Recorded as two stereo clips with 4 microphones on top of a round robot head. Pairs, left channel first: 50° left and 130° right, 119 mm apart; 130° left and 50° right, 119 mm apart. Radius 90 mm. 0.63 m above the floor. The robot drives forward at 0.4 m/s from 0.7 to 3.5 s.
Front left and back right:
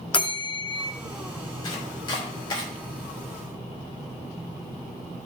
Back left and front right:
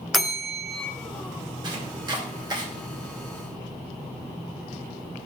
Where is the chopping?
Straight ahead, 3 m.